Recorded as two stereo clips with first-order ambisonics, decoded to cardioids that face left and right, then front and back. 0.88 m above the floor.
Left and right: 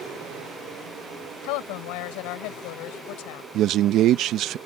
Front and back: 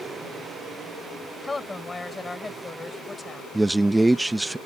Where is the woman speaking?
80° left.